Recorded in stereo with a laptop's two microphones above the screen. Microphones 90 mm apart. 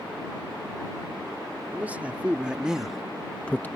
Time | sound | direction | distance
1.7 | a man speaking | 20° right (ahead or behind) | ?